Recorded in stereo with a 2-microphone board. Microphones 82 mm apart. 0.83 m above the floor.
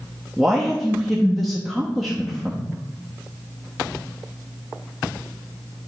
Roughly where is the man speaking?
Centre.